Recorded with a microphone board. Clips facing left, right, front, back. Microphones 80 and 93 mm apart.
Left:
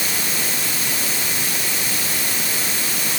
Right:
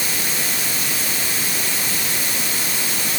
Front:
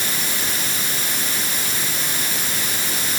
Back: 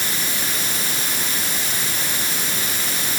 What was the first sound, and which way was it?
Only background noise.